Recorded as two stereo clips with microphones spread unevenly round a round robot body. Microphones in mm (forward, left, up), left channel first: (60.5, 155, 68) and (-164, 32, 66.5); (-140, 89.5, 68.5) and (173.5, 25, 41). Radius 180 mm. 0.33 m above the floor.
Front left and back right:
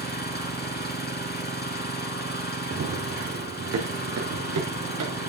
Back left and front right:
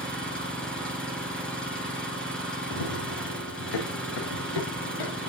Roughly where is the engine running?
Left.